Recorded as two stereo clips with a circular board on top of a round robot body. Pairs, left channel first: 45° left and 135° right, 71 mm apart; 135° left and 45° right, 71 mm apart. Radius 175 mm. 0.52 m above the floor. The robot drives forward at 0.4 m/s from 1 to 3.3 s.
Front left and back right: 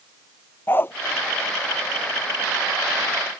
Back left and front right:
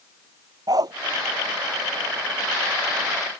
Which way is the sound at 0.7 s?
15° right.